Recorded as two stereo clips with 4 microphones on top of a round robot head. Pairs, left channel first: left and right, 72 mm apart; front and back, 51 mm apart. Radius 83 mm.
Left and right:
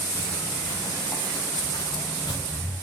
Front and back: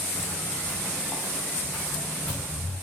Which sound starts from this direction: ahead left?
Footsteps, at 0.1 s.